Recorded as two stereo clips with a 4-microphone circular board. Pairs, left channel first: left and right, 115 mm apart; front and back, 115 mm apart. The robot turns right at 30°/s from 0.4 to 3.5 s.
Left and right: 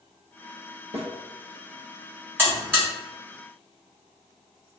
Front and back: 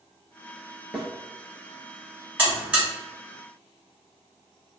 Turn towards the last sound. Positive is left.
turn(degrees=-90)